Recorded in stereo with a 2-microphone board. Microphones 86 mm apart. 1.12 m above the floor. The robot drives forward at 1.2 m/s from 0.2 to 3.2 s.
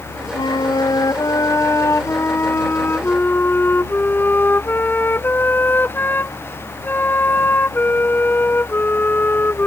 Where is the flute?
65° left (ahead or behind); by 9.7 s 25° left (ahead or behind).